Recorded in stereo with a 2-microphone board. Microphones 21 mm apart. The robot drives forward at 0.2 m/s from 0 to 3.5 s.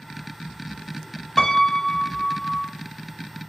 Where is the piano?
25° left (ahead or behind), 0.9 m; by 2.7 s 35° left (ahead or behind), 0.7 m.